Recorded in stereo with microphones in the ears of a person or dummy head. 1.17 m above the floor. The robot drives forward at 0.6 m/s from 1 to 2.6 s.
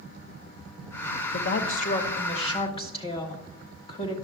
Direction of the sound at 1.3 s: 50° left (ahead or behind).